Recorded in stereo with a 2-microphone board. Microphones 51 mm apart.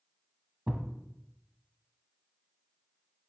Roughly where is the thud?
Right.